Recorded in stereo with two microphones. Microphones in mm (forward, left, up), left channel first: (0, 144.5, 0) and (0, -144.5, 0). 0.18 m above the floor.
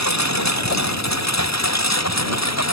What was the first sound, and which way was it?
A lawn mower, 70° left (ahead or behind).